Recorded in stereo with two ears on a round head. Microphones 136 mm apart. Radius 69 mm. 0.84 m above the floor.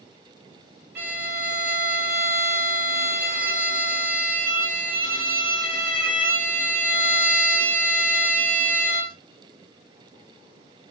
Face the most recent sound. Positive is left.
turn(degrees=-70)  # may be behind; listen again after turning